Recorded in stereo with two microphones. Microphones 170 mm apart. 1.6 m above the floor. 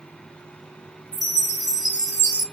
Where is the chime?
45° left (ahead or behind), 0.9 m.